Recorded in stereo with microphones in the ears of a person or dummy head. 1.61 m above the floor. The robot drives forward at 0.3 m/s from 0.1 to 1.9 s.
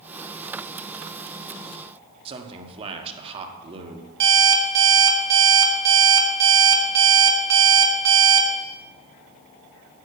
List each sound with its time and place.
2.2 s a man speaking: 30° right (ahead or behind), 1.3 m
4.2 s an alarm clock: 60° right (ahead or behind), 1.8 m